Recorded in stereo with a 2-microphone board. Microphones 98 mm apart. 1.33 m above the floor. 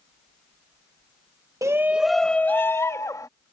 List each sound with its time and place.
1.6 s a shout: 35° right (ahead or behind); by 3.3 s 35° left (ahead or behind)